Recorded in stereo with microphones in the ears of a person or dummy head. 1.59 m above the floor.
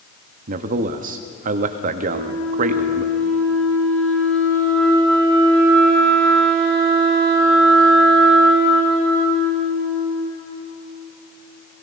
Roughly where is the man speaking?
Right.